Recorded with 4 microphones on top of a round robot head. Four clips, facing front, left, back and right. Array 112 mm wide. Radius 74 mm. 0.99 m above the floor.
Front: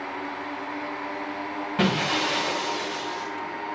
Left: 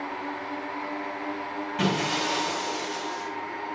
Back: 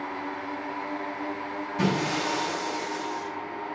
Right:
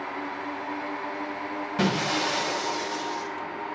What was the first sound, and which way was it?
Breaking glass, 30° right.